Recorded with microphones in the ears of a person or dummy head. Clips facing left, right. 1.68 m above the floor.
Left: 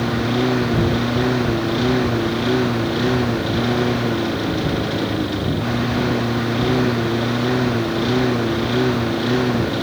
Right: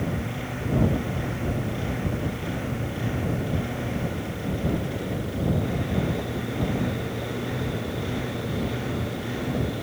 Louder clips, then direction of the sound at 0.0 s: Left 11 dB; 80° left.